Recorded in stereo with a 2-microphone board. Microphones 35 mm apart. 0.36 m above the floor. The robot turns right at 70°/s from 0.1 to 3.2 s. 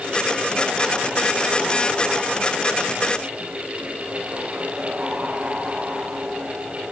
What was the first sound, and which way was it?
Only background noise.